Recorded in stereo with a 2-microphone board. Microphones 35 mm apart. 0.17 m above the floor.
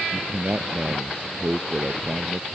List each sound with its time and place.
0.1 s a man speaking: 35° right (ahead or behind)